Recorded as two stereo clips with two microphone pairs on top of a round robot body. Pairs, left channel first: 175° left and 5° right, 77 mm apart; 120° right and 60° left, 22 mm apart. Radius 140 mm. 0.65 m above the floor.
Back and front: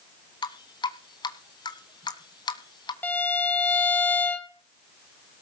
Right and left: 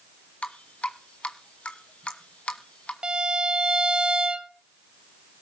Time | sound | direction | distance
0.4 | dripping | 150° right | 1.5 m
3.0 | a violin | 105° left | 2 m